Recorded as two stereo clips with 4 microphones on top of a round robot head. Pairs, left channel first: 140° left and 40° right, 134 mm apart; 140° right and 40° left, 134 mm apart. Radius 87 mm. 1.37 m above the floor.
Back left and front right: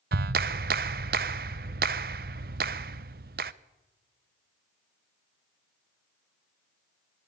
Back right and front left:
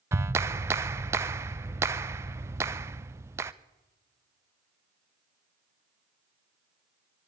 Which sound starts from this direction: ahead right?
A clap, at 0.1 s.